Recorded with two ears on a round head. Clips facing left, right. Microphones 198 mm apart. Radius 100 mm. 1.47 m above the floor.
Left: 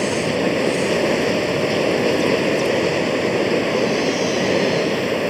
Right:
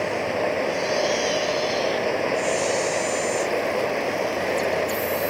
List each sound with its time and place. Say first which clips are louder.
0.0 s running water: left 5 dB; 50° left (ahead or behind)